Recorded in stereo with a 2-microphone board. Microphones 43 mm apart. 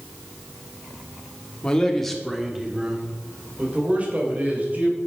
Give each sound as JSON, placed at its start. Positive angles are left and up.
{"t": 1.6, "sound": "a man speaking", "side_deg": 20, "distance_m": 1.8}